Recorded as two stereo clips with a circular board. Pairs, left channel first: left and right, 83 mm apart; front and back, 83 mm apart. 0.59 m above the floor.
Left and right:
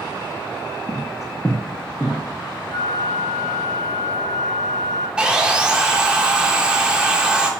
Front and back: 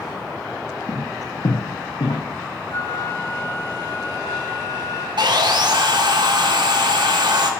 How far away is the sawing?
About 0.9 m.